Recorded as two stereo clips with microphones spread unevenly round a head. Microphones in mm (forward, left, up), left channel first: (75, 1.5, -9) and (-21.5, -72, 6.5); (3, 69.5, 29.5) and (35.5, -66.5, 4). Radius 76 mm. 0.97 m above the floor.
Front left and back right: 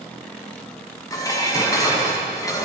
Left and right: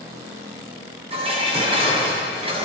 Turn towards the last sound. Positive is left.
turn(degrees=-25)